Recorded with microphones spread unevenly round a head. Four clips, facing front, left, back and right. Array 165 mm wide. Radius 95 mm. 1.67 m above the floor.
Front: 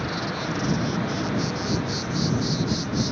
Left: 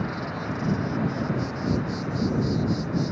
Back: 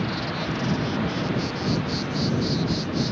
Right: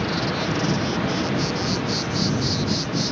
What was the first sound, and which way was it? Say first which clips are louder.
An insect: right 6 dB, back 1 dB; 95° right.